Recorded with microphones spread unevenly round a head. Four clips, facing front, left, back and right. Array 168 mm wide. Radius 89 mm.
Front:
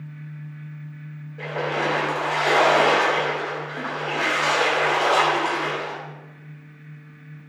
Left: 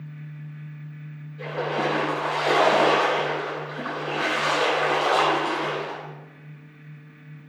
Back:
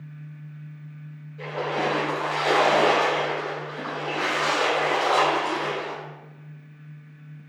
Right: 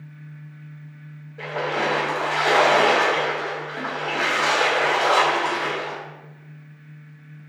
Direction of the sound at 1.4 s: 50° right.